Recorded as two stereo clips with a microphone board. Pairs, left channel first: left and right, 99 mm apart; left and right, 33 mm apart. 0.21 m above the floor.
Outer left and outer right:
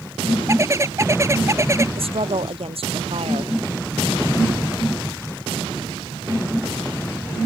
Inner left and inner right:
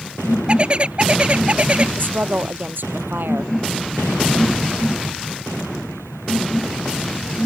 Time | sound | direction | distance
0.5 | a bird | 30° right (ahead or behind) | ?
2.0 | a woman speaking | 75° right (ahead or behind) | ?